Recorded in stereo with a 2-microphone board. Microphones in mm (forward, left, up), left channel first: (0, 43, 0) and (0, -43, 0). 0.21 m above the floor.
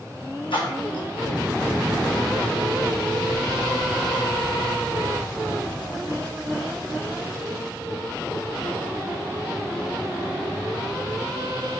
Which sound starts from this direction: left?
A splash, at 0.5 s.